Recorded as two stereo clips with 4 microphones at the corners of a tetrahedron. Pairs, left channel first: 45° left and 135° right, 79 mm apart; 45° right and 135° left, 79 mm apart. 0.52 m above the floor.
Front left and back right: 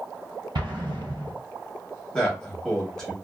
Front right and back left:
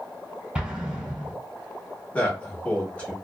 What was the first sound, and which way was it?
An explosion, 150° right.